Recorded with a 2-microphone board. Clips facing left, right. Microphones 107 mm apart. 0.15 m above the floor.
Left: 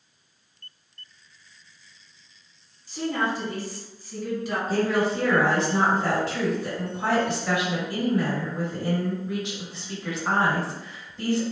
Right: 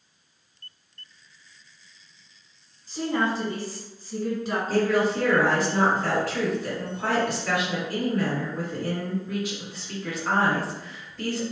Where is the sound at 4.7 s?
25° left (ahead or behind), 1.4 m.